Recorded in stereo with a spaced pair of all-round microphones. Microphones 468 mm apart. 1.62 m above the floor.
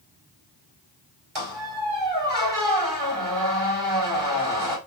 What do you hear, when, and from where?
1.4 s a squeak: 70° right (ahead or behind), 3.5 m